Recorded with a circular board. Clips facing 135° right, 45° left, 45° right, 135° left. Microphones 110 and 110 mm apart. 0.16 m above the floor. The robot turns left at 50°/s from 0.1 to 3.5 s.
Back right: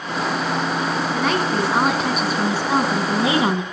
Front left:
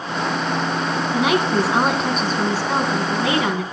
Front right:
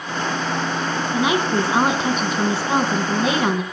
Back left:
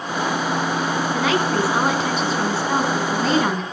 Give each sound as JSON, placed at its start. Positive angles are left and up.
{"t": 1.1, "sound": "a woman speaking", "azimuth_deg": -10, "distance_m": 1.3}